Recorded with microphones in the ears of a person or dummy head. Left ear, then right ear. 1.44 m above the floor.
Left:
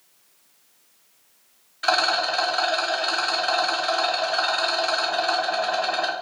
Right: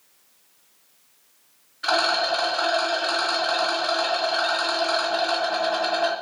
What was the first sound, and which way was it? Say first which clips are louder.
A rattle: even; 30° left (ahead or behind).